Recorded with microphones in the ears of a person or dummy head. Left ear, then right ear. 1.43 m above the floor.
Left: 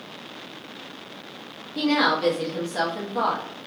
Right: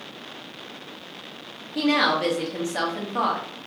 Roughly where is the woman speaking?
Right.